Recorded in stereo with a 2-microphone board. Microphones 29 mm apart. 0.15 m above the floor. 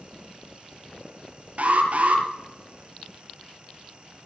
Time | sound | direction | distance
1.6 | an alarm | 60° right (ahead or behind) | 3 m